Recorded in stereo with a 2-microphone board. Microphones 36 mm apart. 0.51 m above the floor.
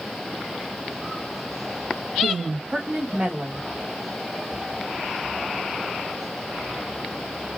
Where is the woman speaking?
40° right (ahead or behind), 1.6 m.